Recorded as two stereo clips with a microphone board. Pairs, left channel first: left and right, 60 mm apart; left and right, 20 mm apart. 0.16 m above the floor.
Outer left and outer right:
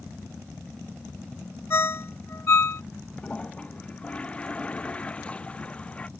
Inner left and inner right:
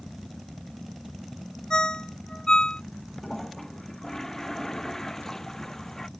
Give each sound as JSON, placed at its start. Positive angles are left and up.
{"t": 1.7, "sound": "a ringtone", "side_deg": 45}
{"t": 3.2, "sound": "a toilet flushing", "side_deg": 20}